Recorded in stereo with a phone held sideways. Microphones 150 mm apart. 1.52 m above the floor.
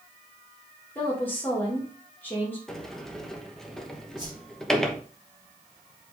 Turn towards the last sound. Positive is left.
turn(degrees=-30)  # may be behind; listen again after turning